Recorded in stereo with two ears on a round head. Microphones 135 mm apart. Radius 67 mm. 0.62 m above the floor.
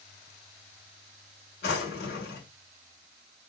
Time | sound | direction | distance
1.6 | a drawer | 70° left (ahead or behind) | 1.4 m